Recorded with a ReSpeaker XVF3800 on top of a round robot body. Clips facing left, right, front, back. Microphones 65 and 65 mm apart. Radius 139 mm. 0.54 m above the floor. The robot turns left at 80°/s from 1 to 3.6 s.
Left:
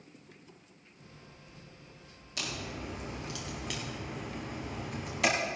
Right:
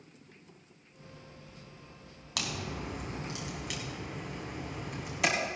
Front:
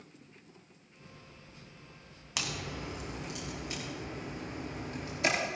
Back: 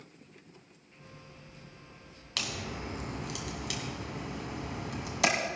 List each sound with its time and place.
2.4 s a crack: 75° right, 1.7 m; by 5.3 s 175° right, 1.7 m